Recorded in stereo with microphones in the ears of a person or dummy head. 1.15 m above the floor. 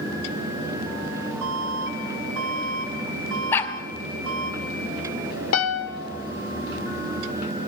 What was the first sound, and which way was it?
An alarm, 65° right (ahead or behind).